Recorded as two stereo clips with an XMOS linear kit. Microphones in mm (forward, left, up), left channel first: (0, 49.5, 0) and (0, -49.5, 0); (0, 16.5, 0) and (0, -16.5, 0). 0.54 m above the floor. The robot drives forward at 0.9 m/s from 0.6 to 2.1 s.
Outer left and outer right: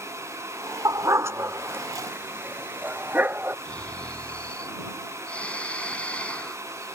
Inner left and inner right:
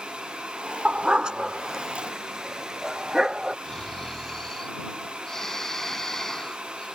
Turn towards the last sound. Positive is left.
turn(degrees=15)  # may be behind; listen again after turning